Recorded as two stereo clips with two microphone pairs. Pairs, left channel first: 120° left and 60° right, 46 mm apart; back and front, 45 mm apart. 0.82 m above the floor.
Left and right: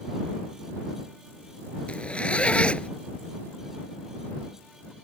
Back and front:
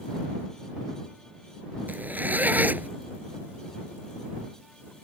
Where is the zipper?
50° left.